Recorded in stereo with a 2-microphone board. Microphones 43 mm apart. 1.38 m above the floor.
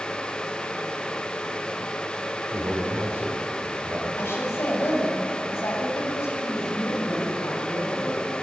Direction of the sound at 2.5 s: 40° right (ahead or behind).